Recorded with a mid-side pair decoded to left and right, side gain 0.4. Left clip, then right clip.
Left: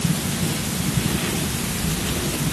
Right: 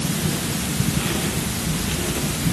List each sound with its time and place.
Only background noise.